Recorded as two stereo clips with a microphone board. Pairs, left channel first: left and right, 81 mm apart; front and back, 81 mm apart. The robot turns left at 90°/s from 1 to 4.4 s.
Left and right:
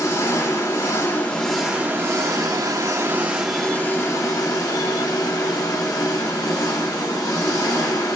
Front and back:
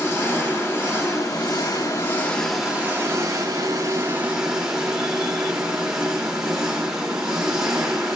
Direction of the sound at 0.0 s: 50° left.